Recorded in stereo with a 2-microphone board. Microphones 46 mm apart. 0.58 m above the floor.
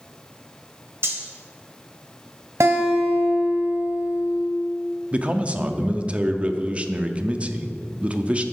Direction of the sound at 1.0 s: 60° right (ahead or behind).